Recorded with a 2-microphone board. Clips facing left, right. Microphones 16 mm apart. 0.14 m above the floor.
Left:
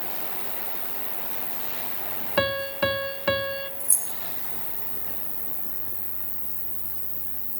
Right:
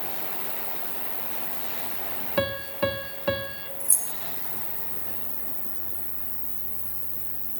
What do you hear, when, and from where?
0.0 s an insect: 65° left (ahead or behind), 1.1 m
2.4 s a piano: 30° left (ahead or behind), 0.5 m
3.8 s keys jangling: centre (ahead or behind), 0.9 m